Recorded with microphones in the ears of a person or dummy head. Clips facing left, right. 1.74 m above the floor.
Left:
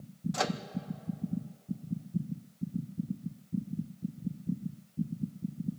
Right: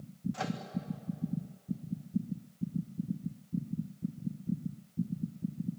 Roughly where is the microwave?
Left.